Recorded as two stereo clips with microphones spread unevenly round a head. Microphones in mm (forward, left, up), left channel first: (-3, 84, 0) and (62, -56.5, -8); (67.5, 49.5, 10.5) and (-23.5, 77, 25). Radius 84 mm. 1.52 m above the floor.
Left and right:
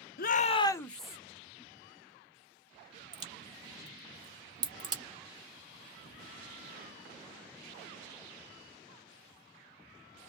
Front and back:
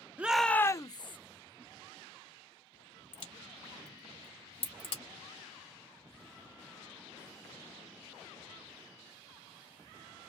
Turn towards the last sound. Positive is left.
turn(degrees=-10)